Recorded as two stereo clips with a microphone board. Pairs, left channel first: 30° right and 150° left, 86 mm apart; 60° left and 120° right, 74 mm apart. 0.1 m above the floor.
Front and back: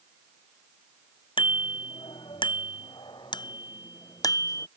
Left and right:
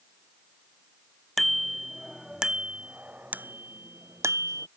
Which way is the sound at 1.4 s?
25° right.